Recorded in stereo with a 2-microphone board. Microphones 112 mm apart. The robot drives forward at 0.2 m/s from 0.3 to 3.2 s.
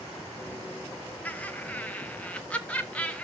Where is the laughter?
10° left (ahead or behind), 1.5 m.